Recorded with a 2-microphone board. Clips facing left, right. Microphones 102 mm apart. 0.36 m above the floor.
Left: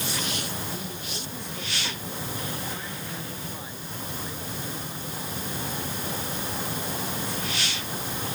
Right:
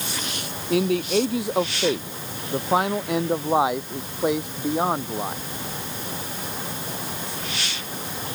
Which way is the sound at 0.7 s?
80° right.